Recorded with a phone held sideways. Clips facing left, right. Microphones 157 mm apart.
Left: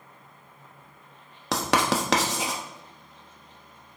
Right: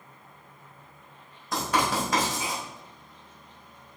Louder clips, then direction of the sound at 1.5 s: Left 2 dB; 85° left.